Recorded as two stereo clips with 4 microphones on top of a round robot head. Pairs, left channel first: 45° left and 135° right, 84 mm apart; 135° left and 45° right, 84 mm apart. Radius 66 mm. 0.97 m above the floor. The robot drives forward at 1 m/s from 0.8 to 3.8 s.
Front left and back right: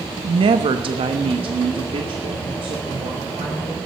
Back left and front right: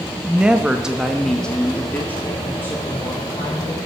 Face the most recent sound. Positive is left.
turn(degrees=-165)